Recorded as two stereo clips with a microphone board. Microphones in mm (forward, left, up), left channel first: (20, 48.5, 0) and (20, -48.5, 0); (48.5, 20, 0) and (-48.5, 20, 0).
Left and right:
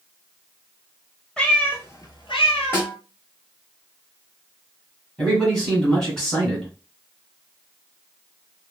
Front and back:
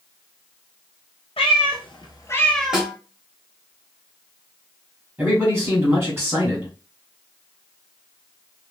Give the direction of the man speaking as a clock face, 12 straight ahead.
7 o'clock.